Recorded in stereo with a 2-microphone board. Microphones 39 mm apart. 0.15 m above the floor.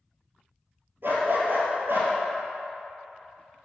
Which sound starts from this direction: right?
A dog barking, at 1.0 s.